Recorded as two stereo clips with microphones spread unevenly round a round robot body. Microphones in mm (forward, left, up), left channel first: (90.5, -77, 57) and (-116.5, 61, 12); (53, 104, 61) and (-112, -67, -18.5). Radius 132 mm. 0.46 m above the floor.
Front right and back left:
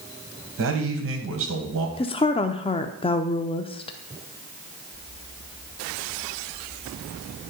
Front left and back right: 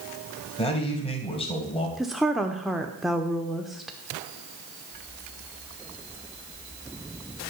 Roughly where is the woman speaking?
Right.